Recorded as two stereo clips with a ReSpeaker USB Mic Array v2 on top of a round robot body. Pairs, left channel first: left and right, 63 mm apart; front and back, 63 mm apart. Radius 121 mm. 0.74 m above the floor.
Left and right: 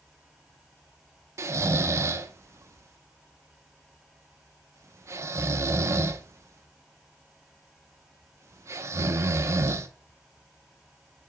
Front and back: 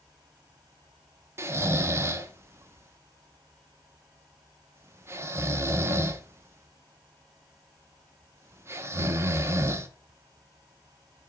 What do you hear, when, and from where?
1.4 s snoring: 130° right, 0.8 m